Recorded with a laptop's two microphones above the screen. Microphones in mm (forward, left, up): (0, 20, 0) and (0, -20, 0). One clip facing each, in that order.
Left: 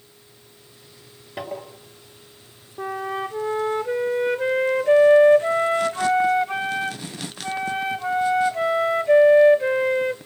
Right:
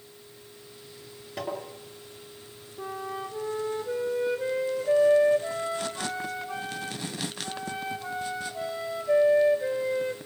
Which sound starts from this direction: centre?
Tapping, at 1.4 s.